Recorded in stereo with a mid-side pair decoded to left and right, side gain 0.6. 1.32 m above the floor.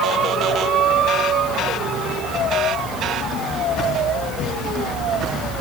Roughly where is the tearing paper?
I don't hear tearing paper.